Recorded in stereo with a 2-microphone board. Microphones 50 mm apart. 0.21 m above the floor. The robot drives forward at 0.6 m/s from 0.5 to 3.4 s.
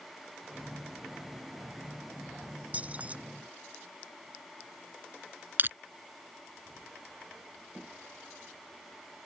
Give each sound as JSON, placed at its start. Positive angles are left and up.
{"t": 2.7, "sound": "keys jangling", "side_deg": -30}
{"t": 5.6, "sound": "crushing", "side_deg": -40}